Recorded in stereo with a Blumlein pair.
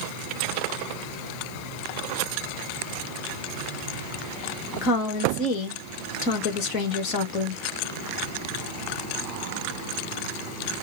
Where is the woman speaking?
40° left, 1.5 m.